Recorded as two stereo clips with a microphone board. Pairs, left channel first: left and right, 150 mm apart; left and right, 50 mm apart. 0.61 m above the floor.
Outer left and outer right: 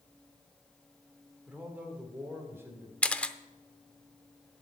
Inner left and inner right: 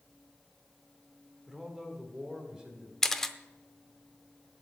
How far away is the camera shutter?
About 0.5 m.